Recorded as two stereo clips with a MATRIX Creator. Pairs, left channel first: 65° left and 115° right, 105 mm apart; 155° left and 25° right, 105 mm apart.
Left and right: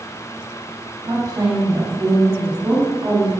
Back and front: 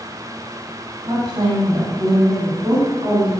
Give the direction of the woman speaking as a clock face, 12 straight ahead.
2 o'clock.